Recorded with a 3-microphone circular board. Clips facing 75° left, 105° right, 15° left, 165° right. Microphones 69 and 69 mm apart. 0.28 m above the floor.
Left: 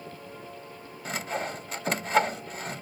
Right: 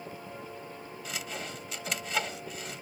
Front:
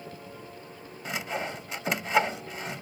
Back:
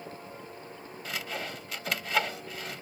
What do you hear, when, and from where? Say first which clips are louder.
1.1 s sawing: left 8 dB, front 4 dB; 70° left